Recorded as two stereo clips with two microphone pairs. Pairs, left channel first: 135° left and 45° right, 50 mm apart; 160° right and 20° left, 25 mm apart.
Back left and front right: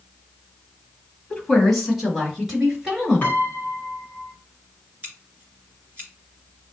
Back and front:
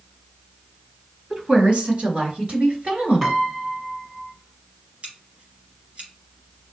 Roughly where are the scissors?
Ahead.